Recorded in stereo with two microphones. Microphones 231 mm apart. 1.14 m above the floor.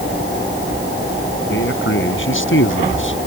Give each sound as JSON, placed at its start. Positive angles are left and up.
{"t": 1.5, "sound": "a man speaking", "side_deg": 60}